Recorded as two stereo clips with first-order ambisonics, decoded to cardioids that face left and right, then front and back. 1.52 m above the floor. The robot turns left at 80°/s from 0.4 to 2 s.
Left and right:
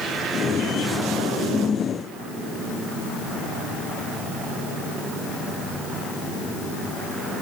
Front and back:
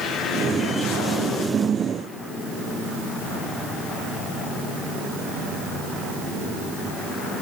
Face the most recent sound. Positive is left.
No sound to turn to.